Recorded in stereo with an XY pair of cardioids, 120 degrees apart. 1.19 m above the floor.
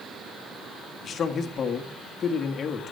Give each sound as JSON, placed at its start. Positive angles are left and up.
{"t": 1.0, "sound": "a man speaking", "azimuth_deg": 45, "distance_m": 1.9}